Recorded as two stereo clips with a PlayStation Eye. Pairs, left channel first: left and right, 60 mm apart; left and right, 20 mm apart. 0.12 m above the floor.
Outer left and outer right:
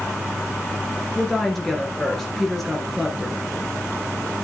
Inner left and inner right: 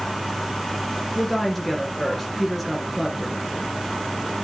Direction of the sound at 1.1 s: 5° left (ahead or behind).